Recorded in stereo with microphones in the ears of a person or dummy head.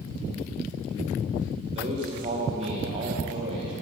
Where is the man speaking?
40° right (ahead or behind), 1.2 m.